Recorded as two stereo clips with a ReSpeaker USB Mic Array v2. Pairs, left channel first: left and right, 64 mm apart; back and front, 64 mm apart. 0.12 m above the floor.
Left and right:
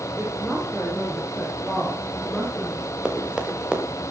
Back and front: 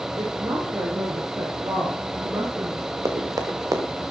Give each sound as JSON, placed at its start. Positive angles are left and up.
{"t": 0.2, "sound": "a woman speaking", "azimuth_deg": -15, "distance_m": 6.0}
{"t": 3.0, "sound": "running footsteps", "azimuth_deg": -15, "distance_m": 4.5}